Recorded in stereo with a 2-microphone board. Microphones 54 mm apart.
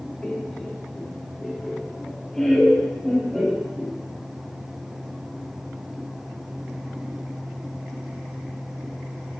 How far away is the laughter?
About 2.5 m.